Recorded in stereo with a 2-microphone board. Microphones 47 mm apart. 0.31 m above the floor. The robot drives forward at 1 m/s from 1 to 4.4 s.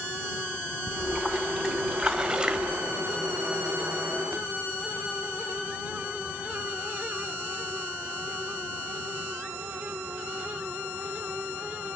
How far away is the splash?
About 2.5 m.